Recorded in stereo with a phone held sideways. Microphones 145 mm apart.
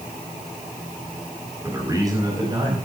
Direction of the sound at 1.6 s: 20° right (ahead or behind).